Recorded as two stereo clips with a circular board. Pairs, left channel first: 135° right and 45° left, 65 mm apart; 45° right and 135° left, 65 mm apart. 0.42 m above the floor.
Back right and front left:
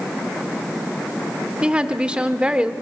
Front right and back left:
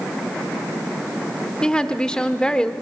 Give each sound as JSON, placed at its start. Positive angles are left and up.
{"t": 1.6, "sound": "a woman speaking", "azimuth_deg": 10, "distance_m": 0.9}